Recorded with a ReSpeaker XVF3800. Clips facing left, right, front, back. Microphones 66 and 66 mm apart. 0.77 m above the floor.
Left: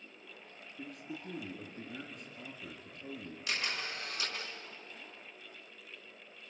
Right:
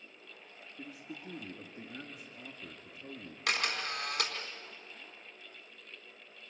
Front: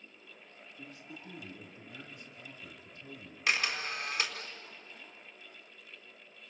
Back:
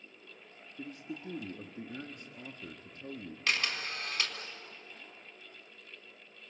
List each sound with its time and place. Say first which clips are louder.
0.8 s a man speaking: left 2 dB, back 7 dB; 175° right, 1.7 m
3.5 s a camera shutter: right 4 dB, front 2 dB; 80° right, 4 m